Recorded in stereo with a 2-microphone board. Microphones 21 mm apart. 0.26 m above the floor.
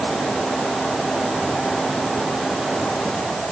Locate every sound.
Only background noise.